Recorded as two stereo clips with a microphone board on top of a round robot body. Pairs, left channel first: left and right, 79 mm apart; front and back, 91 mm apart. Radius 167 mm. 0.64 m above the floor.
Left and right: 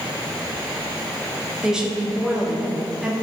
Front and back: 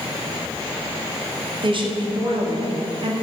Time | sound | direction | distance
1.6 | a woman speaking | 170° right | 1.9 m